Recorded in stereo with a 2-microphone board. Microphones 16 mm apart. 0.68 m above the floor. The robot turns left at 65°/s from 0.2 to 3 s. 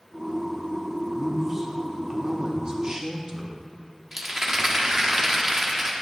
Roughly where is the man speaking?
Ahead.